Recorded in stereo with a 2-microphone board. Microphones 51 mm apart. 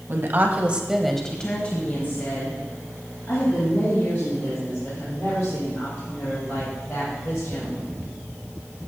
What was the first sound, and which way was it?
A woman speaking, 50° right (ahead or behind).